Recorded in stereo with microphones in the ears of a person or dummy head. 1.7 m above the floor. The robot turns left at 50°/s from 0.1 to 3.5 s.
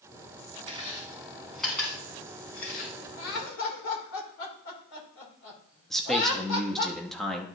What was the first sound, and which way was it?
Chewing, 40° right (ahead or behind).